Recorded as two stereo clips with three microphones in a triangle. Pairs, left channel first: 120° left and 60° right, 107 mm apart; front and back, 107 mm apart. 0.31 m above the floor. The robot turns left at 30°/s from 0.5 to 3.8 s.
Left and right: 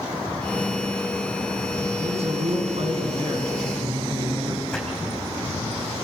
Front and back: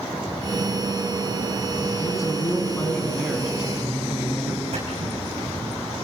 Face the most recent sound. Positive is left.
turn(degrees=-155)